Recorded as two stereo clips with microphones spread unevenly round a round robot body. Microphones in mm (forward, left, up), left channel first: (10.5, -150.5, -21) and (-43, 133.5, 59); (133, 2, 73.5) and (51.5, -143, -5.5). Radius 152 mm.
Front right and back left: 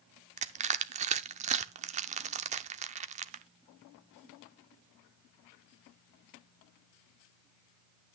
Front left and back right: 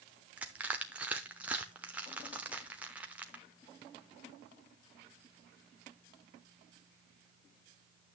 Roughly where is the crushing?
Behind left.